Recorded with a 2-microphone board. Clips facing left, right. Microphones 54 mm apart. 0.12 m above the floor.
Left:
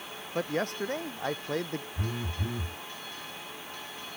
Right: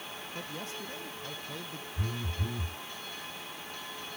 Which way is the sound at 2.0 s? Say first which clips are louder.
Left 2 dB; 20° left (ahead or behind).